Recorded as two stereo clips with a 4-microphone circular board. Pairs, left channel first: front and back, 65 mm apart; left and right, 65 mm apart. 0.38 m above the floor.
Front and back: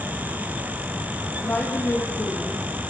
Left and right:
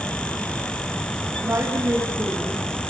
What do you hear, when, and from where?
1.4 s a woman speaking: 50° right, 3 m